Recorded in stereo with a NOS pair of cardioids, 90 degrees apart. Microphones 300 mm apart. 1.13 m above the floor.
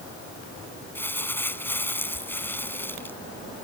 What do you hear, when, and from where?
0.9 s crumpling: 5° left